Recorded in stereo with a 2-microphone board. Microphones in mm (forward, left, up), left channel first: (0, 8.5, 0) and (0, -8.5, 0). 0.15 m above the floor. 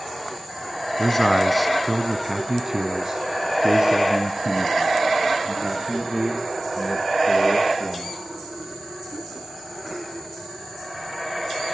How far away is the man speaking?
About 1.3 m.